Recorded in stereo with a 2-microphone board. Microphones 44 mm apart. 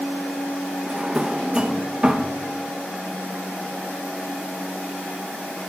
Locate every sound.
0.9 s a drawer: 20° right (ahead or behind), 0.6 m